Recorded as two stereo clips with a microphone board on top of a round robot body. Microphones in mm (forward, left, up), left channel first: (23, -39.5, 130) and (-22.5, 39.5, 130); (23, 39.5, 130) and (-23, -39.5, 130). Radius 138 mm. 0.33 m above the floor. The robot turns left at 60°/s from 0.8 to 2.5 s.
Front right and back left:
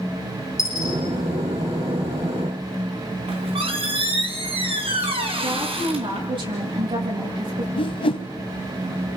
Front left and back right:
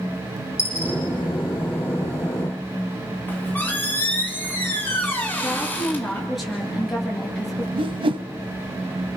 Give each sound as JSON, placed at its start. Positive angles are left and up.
{"t": 0.6, "sound": "a dropped coin", "azimuth_deg": -5, "distance_m": 9.5}
{"t": 3.3, "sound": "a squeak", "azimuth_deg": 130, "distance_m": 3.0}
{"t": 5.4, "sound": "a woman speaking", "azimuth_deg": 150, "distance_m": 8.0}
{"t": 7.8, "sound": "a whoosh", "azimuth_deg": -90, "distance_m": 0.7}